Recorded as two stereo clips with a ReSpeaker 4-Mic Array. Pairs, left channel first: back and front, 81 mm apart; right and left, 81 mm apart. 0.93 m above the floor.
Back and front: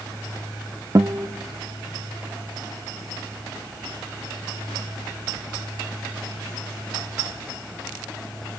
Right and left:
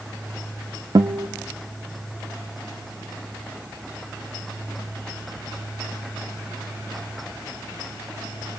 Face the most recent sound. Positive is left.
turn(degrees=50)